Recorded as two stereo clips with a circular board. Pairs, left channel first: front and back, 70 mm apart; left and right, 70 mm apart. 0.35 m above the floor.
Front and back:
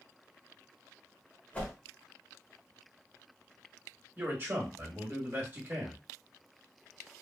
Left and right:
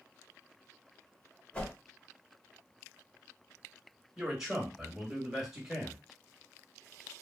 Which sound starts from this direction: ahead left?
A whoosh, at 1.5 s.